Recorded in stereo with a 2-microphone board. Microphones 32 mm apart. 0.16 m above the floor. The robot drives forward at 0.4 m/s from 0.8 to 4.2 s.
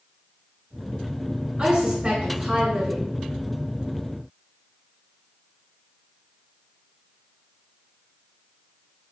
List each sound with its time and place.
1.6 s a woman speaking: 35° right (ahead or behind), 1.7 m